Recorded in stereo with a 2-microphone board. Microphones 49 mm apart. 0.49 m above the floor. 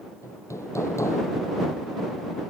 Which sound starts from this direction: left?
Hammering, at 0.2 s.